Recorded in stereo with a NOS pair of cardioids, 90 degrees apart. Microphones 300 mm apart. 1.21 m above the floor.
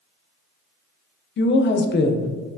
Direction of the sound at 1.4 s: 40° left.